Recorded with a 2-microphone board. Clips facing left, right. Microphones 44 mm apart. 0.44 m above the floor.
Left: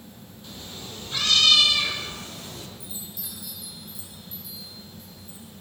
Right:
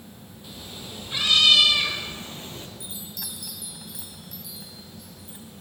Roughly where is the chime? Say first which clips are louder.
Right 2 dB; right.